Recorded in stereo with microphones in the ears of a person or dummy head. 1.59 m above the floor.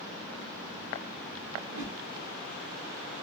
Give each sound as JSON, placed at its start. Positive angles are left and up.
{"t": 1.6, "sound": "a whoosh", "side_deg": -75, "distance_m": 2.0}